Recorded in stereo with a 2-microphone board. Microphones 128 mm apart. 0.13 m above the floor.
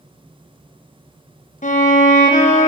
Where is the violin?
80° left, 1.3 m.